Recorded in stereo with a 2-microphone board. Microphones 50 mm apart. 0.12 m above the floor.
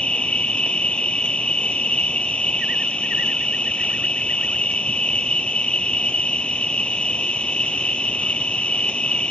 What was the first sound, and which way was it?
An insect, 25° left (ahead or behind).